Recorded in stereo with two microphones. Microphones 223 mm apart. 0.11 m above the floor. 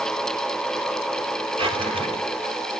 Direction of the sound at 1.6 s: 25° right (ahead or behind).